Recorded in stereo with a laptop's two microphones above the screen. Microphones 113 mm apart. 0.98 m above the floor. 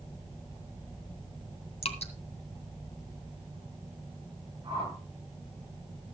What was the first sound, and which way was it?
Dripping, 70° left (ahead or behind).